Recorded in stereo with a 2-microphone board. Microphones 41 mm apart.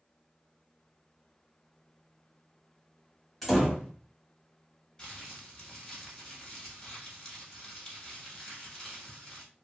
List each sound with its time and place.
3.4 s a door slam: 5° left (ahead or behind), 1.1 m
5.0 s crumpling: 15° left (ahead or behind), 1.1 m